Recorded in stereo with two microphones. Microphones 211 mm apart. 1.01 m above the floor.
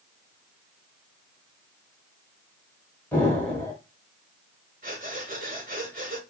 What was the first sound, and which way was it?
An explosion, 10° left (ahead or behind).